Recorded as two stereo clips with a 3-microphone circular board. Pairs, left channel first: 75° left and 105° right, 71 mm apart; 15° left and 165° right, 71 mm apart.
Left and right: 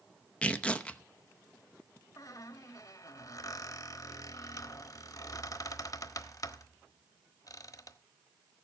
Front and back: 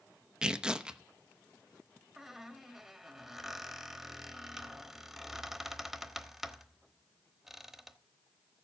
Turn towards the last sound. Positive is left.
turn(degrees=110)